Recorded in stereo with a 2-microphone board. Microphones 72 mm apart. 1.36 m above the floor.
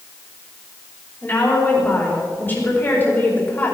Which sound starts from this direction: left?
A woman speaking, at 1.2 s.